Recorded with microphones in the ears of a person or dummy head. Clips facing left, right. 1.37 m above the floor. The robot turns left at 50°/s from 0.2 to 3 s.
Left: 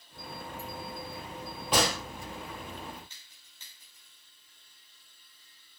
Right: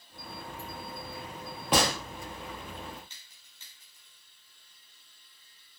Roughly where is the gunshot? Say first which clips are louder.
Right 1 dB; right.